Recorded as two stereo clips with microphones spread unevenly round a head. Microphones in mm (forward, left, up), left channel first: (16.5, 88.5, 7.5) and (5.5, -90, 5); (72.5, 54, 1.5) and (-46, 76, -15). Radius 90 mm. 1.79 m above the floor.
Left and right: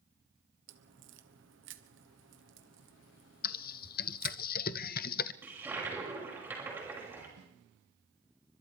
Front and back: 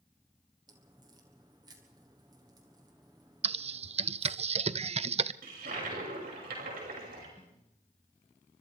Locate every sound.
0.7 s a crack: 120° right, 1.3 m
3.4 s typing on a keyboard: 130° left, 0.6 m
5.4 s a toilet flushing: 170° right, 6 m
7.4 s a snare drum: 85° right, 4 m